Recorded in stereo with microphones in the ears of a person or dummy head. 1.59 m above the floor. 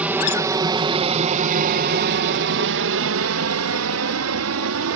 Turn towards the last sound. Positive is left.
turn(degrees=-70)  # may be behind; listen again after turning